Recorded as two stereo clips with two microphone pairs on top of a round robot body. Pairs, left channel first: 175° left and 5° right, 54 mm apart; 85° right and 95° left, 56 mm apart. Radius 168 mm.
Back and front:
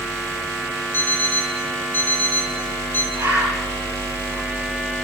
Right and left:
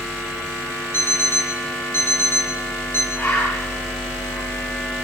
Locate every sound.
0.9 s an alarm clock: 130° right, 3.5 m
3.1 s a bird: 35° right, 8.5 m